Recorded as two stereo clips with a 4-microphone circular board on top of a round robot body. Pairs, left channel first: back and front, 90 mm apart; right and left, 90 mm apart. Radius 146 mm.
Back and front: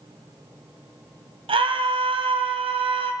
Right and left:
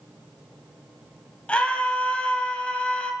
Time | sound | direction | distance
1.5 | a scream | 10° right | 4.5 m